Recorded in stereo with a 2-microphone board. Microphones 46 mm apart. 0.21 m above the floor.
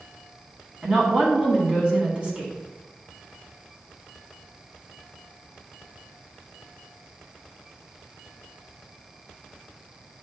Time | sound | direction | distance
0.8 | a woman speaking | 25° right (ahead or behind) | 1.7 m